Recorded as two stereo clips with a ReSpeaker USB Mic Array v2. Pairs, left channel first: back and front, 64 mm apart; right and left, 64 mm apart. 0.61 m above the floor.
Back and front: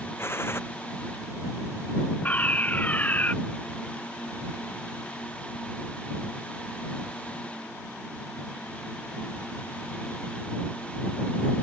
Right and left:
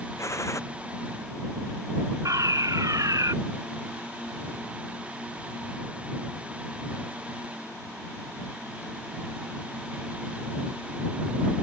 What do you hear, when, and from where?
0.2 s a gunshot: 130° right
2.2 s a fire alarm: 115° left